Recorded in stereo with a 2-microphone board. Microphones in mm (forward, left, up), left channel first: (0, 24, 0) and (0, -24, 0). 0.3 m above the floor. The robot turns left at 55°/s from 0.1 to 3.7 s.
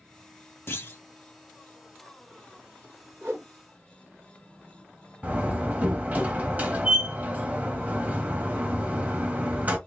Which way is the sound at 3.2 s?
55° right (ahead or behind).